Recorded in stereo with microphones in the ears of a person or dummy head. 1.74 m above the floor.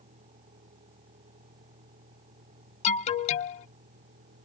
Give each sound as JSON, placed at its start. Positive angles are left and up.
{"t": 0.0, "sound": "a vehicle", "side_deg": -30}
{"t": 2.8, "sound": "an alarm", "side_deg": 35}